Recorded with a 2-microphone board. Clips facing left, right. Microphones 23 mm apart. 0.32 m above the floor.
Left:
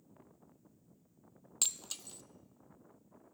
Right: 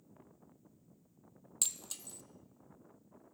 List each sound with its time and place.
1.6 s breaking glass: 25° left (ahead or behind), 0.6 m